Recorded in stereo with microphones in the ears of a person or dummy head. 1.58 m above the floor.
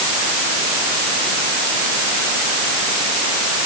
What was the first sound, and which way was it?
Only background noise.